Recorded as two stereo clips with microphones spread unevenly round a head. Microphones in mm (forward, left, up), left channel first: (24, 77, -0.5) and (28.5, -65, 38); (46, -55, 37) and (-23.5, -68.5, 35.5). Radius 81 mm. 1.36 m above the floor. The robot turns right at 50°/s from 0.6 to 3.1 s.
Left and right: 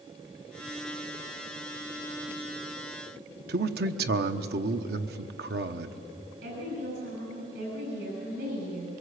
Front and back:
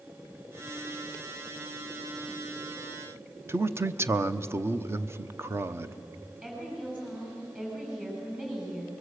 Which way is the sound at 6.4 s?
95° right.